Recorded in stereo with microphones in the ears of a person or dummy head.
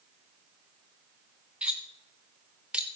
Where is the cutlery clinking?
5° right (ahead or behind), 1.0 m.